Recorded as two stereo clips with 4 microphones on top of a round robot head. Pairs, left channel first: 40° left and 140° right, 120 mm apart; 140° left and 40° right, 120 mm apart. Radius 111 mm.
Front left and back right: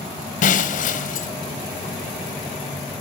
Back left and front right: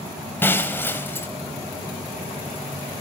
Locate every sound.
0.4 s breaking glass: 65° left, 2.5 m